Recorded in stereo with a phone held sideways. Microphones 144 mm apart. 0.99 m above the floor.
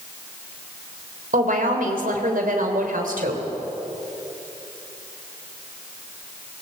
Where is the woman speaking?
70° right (ahead or behind), 3.5 m.